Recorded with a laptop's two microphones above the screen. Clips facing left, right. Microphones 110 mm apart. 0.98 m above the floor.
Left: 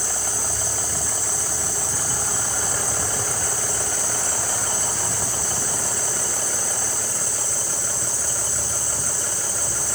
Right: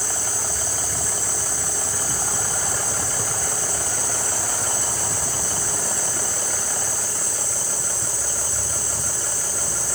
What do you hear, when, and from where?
0.0 s an insect: 80° left, 6 m